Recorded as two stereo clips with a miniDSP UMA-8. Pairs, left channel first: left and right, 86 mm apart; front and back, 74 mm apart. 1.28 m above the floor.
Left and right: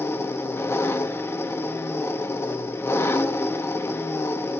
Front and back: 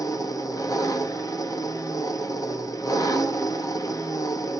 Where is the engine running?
30° left, 1.1 m.